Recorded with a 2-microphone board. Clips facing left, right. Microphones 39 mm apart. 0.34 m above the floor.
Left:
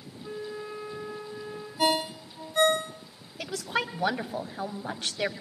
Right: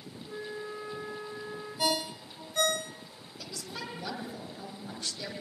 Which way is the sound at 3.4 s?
60° left (ahead or behind).